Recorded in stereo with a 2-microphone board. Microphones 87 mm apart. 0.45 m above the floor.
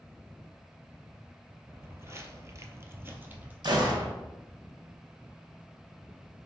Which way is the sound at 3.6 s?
55° right (ahead or behind).